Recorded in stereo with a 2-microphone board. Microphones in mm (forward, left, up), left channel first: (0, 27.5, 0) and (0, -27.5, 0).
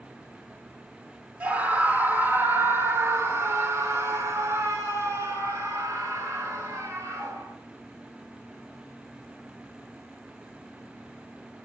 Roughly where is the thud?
No thud in this recording.